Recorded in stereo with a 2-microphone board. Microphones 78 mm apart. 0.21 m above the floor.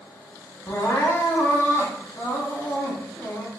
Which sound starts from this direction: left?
Crying, at 0.7 s.